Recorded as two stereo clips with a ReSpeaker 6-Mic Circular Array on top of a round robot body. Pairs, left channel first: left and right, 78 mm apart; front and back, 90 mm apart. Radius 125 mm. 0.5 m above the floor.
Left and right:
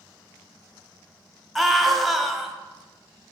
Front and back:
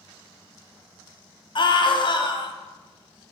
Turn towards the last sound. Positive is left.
turn(degrees=0)